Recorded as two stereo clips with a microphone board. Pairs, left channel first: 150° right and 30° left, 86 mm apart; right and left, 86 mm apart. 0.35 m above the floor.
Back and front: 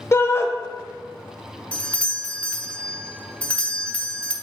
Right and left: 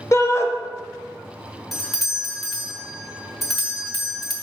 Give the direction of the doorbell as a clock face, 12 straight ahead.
6 o'clock.